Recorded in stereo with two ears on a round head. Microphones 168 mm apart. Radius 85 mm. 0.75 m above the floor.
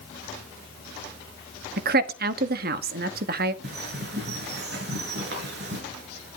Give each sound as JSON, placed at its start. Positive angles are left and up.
{"t": 1.8, "sound": "a woman speaking", "side_deg": -55, "distance_m": 1.1}
{"t": 3.6, "sound": "a bird", "side_deg": -55, "distance_m": 5.0}